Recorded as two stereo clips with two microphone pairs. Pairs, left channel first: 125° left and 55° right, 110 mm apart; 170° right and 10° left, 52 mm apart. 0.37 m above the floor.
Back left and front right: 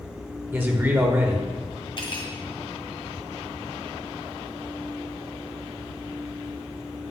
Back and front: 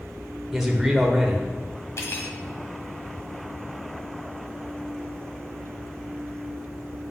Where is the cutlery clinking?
160° left, 1.4 m.